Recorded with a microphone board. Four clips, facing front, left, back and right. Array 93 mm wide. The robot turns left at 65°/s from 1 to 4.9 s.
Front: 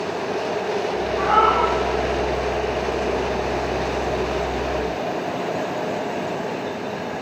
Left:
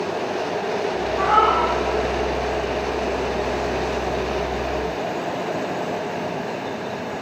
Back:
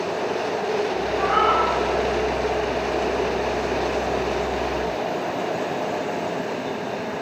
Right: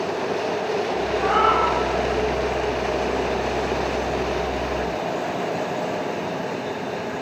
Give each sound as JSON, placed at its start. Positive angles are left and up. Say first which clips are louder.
{"t": 1.2, "sound": "a cat meowing", "louder": "left 2 dB, front 3 dB", "azimuth_deg": 55, "distance_m": 2.5}